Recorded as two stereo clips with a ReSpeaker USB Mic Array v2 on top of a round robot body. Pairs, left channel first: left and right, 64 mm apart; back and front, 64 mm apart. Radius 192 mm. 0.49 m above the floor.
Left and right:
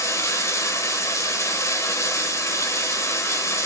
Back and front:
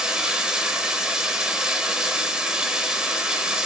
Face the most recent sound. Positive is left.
turn(degrees=75)